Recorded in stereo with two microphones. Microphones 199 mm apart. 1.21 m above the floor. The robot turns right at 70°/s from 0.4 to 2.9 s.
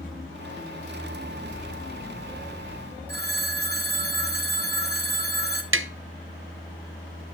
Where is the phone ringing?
50° right (ahead or behind), 1.1 m.